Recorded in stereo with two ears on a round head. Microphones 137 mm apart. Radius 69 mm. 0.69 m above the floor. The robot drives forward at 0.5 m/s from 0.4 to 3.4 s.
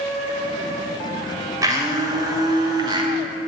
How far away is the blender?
About 3 m.